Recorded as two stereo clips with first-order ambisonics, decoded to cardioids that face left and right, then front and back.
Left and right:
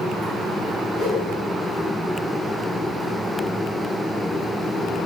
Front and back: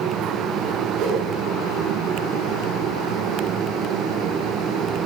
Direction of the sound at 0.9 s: 155° left.